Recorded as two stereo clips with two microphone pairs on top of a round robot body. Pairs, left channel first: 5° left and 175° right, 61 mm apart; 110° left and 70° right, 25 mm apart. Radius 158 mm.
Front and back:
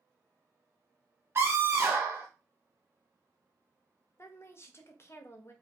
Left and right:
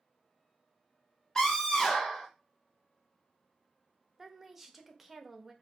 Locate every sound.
1.4 s a scream: 160° left, 0.9 m
4.2 s a woman speaking: 20° left, 1.0 m